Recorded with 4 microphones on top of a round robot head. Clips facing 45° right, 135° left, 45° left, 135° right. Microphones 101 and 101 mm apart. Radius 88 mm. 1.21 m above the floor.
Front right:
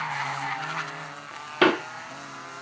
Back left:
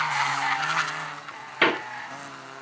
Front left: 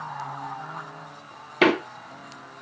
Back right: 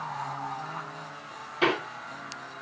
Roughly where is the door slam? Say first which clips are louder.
Front right 3 dB, front left 6 dB; ahead.